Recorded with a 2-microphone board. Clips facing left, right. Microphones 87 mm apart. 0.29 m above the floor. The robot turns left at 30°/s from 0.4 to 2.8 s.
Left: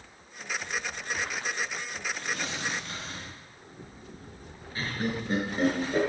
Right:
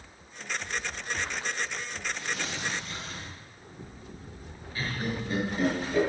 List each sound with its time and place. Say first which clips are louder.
2.1 s tearing paper: even; 50° left (ahead or behind), 4.5 m; by 3.4 s 65° left (ahead or behind), 4.5 m
4.8 s laughter: left 1 dB; 30° left (ahead or behind), 4.5 m